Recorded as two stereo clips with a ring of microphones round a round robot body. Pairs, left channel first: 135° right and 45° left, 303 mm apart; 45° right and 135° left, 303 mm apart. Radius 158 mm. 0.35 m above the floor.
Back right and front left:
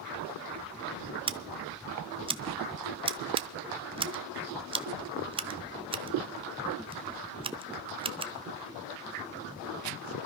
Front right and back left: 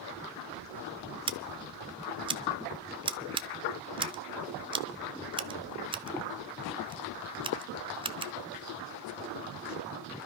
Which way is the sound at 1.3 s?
90° left.